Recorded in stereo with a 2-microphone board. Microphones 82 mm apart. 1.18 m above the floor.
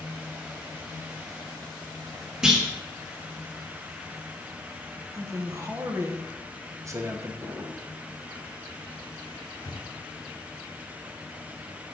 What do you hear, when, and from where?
2.4 s a clunk: 5° right (ahead or behind), 1.1 m
5.1 s a man speaking: 35° right (ahead or behind), 0.9 m
7.4 s a drawer: 30° right (ahead or behind), 1.8 m
9.6 s breathing: 50° left (ahead or behind), 1.1 m